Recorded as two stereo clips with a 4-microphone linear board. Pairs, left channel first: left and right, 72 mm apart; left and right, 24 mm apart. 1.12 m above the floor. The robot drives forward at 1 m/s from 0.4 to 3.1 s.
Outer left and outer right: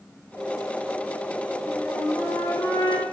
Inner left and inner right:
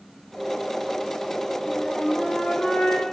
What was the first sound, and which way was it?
A flute, 40° left (ahead or behind).